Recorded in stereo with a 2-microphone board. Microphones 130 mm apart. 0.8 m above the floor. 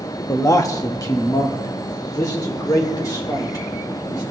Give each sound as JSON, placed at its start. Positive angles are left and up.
{"t": 0.3, "sound": "a man speaking", "side_deg": 25, "distance_m": 0.9}